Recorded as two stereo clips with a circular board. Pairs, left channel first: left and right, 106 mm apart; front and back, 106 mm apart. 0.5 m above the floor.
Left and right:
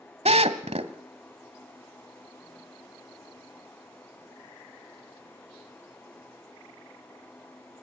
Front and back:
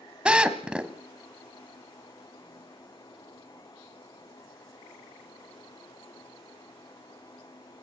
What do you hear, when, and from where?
0.2 s a drill: 100° right, 1.2 m